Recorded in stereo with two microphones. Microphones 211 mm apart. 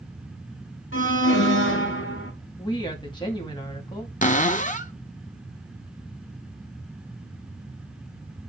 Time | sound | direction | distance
0.9 | an alarm | 65° left (ahead or behind) | 1.4 m
2.6 | a woman speaking | 20° left (ahead or behind) | 1.9 m
4.2 | a cupboard door | 35° left (ahead or behind) | 0.7 m